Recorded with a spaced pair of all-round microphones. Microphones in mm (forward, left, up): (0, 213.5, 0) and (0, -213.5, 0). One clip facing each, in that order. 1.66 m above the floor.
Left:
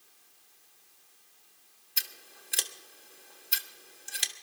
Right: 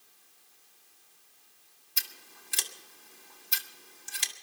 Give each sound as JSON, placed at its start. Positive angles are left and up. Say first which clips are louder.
{"t": 2.0, "sound": "scissors", "louder": "left 1 dB", "side_deg": -15, "distance_m": 1.3}